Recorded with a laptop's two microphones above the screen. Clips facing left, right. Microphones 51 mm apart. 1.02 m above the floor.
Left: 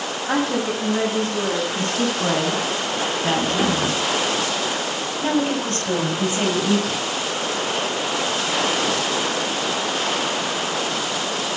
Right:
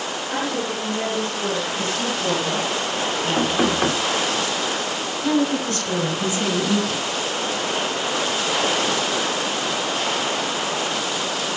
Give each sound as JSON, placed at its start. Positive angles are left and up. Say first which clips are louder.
{"t": 0.3, "sound": "a woman speaking", "louder": "left 5 dB", "side_deg": 70, "distance_m": 7.0}
{"t": 1.7, "sound": "a woman speaking", "louder": "left 2 dB", "side_deg": 70, "distance_m": 8.0}
{"t": 3.4, "sound": "knocking", "louder": "right 1 dB", "side_deg": -25, "distance_m": 2.5}
{"t": 5.2, "sound": "a woman speaking", "louder": "right 1 dB", "side_deg": 40, "distance_m": 7.0}